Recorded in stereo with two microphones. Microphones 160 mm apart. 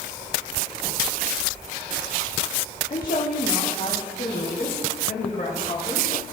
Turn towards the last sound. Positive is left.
turn(degrees=75)  # may be behind; listen again after turning